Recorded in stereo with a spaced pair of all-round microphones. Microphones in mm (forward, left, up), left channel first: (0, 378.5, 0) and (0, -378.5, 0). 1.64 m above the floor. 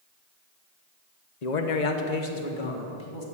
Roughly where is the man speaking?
Left.